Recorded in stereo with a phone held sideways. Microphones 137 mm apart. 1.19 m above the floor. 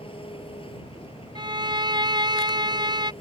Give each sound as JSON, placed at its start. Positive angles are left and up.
{"t": 0.0, "sound": "an engine running", "side_deg": 40}
{"t": 1.4, "sound": "a violin", "side_deg": -30}